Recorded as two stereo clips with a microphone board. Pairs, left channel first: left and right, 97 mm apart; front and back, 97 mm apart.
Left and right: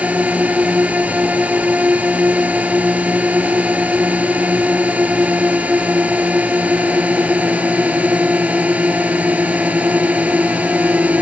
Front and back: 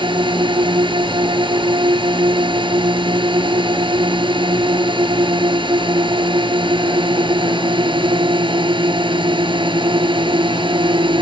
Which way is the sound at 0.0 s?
165° right.